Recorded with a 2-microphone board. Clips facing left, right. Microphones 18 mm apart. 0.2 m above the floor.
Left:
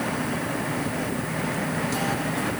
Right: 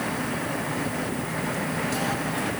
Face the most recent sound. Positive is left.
No sound to turn to.